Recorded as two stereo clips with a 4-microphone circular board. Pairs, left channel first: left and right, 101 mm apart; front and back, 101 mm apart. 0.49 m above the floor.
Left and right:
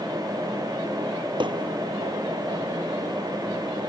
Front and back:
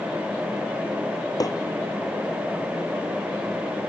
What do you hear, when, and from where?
1.4 s hammering: 50° right